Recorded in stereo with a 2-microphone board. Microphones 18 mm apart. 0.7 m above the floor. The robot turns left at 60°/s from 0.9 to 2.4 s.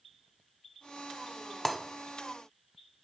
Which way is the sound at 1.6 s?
10° left (ahead or behind).